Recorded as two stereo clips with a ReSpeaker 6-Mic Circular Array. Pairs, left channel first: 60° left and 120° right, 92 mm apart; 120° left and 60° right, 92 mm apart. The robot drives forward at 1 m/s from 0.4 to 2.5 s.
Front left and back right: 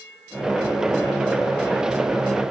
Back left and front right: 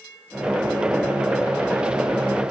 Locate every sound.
Only background noise.